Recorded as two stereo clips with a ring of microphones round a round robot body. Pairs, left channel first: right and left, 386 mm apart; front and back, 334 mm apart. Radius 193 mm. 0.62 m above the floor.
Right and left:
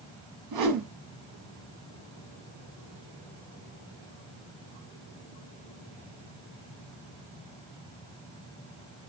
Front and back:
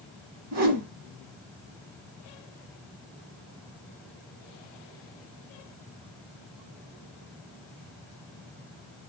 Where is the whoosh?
135° left, 1.2 m.